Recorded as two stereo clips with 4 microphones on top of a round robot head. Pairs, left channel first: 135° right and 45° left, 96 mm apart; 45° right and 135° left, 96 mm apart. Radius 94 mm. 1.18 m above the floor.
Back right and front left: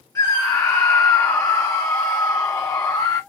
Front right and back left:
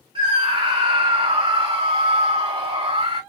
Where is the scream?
165° left, 1.4 m.